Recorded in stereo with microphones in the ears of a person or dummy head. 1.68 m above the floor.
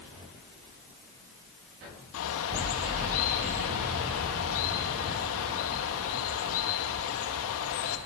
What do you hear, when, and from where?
2.1 s a bird: 70° left (ahead or behind), 2 m